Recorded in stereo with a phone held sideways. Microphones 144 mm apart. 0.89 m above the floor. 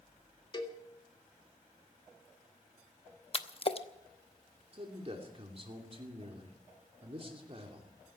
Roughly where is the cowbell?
Left.